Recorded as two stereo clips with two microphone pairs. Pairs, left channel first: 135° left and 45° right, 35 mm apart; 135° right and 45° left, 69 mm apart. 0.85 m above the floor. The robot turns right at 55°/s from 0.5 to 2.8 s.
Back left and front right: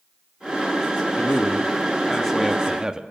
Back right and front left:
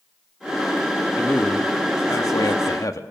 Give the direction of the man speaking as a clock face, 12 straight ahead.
7 o'clock.